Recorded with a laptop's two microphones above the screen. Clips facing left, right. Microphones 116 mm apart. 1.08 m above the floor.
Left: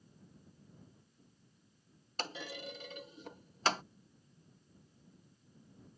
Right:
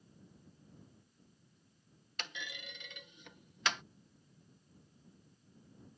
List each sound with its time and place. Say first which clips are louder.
2.2 s a clunk: left 6 dB; 35° left (ahead or behind)